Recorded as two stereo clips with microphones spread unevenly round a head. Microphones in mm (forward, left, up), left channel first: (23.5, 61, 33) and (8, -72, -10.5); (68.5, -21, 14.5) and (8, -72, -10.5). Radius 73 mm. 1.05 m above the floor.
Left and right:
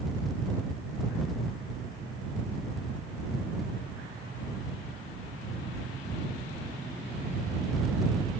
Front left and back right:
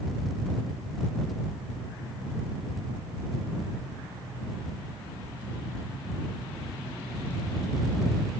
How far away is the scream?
I don't hear a scream.